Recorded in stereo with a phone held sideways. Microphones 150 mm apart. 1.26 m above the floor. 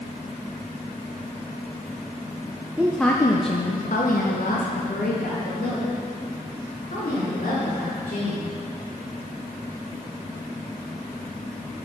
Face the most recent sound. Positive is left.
turn(degrees=80)